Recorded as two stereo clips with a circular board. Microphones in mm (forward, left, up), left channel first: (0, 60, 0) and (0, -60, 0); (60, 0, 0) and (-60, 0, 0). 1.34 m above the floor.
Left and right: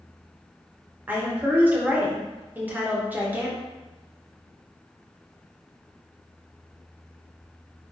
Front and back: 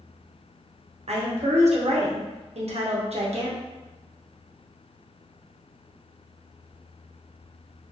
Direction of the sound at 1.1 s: 165° right.